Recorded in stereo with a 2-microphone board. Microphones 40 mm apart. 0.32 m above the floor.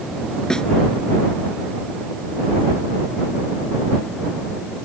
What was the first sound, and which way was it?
A snare drum, 15° left (ahead or behind).